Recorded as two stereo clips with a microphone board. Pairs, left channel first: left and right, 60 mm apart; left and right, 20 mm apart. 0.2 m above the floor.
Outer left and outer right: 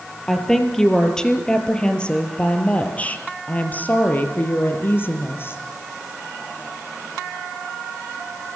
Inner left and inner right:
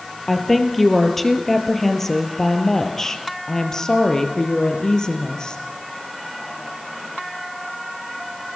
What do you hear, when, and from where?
0.3 s a woman speaking: 5° left (ahead or behind), 5 m; by 5.6 s 40° left (ahead or behind), 5 m